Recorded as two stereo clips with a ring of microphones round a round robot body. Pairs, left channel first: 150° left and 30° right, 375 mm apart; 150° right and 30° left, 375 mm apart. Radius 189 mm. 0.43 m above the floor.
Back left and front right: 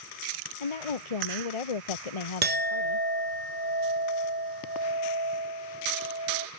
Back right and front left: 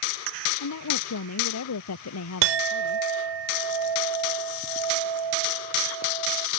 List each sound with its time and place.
0.6 s a woman speaking: 160° left
2.4 s a clink: 35° left